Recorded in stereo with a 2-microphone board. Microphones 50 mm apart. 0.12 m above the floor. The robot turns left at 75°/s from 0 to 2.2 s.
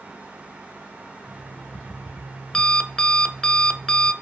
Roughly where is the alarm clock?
Left.